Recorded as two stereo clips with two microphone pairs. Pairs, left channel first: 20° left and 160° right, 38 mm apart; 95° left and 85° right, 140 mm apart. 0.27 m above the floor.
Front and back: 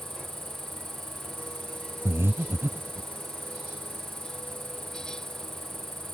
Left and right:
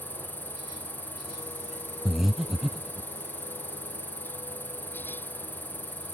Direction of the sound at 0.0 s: 165° right.